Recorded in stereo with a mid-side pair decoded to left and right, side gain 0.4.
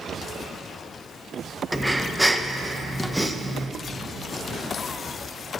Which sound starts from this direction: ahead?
Breathing, at 1.7 s.